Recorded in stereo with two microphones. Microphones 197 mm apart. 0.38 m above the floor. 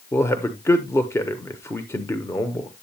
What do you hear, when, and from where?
0.1 s a man speaking: 15° left (ahead or behind), 0.9 m